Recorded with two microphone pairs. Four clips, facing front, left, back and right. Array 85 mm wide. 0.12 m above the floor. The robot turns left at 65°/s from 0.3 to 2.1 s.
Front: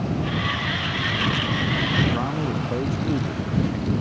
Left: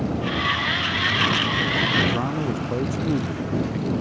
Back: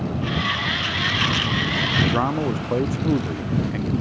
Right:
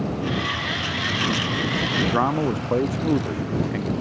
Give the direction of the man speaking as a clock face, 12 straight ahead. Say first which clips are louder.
Right 3 dB, back 3 dB; 4 o'clock.